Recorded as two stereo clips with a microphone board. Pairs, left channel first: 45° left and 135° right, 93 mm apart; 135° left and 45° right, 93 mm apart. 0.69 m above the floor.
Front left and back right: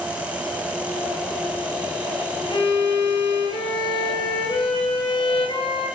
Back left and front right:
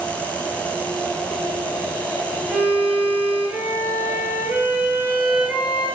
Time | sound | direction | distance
2.5 | a violin | 30° left | 9.5 m